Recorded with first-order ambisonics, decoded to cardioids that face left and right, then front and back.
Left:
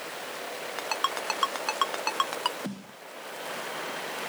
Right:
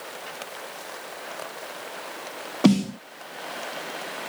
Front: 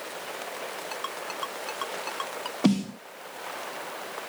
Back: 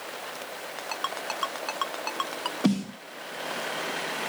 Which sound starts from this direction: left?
A ringtone, at 0.8 s.